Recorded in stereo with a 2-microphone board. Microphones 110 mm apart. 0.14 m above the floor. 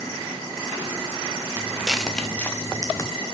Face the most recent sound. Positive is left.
turn(degrees=35)  # may be behind; listen again after turning